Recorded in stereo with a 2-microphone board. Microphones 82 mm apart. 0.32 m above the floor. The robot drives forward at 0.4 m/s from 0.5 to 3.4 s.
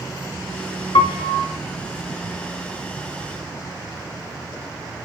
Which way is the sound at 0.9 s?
75° left (ahead or behind).